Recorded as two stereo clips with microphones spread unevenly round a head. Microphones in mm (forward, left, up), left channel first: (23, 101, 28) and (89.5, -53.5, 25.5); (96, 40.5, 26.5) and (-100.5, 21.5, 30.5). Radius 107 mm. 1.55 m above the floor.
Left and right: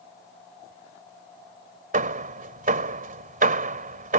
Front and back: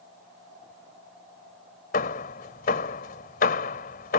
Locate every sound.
1.9 s hammering: 40° right